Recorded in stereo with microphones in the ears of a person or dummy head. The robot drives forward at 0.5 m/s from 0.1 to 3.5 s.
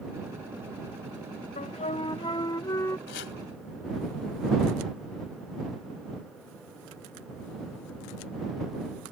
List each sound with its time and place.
1.6 s a flute: 30° left (ahead or behind); by 3.0 s 15° left (ahead or behind)
3.1 s chopping: 70° left (ahead or behind)